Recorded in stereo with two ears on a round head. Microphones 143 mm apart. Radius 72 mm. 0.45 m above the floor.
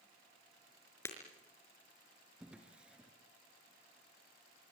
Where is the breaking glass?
15° left (ahead or behind), 4.5 m.